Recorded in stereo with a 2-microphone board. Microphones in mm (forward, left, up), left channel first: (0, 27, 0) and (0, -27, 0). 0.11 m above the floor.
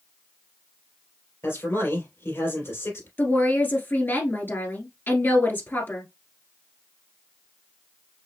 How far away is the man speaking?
About 3 m.